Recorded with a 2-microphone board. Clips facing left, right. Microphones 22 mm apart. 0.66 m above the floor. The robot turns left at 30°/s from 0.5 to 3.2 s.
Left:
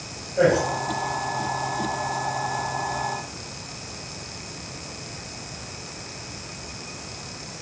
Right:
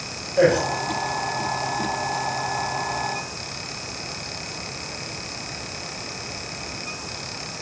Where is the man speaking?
25° right (ahead or behind), 2.5 m; by 0.6 s 30° right (ahead or behind), 2.5 m.